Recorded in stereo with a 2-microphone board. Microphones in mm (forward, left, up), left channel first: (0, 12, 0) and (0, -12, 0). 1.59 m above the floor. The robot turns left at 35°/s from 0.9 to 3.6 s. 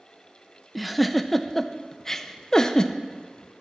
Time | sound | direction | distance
0.8 | a giggle | 5° right (ahead or behind) | 0.6 m